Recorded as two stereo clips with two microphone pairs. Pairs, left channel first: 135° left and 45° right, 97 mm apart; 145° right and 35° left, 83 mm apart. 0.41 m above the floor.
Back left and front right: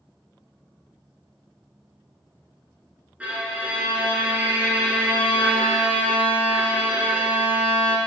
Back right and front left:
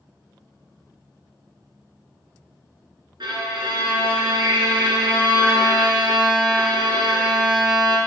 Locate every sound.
3.2 s a violin: 30° left, 1.6 m